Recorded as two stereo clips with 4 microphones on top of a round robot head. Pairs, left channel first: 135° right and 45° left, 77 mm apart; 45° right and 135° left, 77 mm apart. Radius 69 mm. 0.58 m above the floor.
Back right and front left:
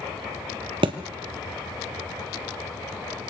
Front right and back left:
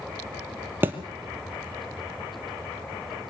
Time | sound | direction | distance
0.8 | a thud | 70° left | 1.6 m